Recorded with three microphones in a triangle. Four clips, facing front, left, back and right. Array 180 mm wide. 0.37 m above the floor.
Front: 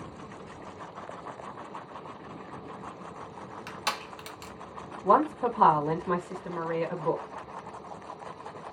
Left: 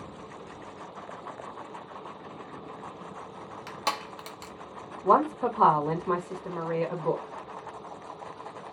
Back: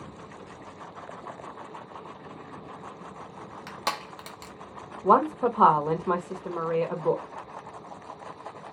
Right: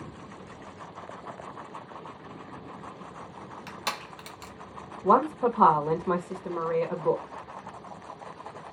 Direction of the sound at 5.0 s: 165° right.